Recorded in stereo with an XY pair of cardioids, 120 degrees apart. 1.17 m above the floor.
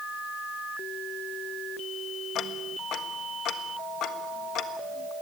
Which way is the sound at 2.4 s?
65° left.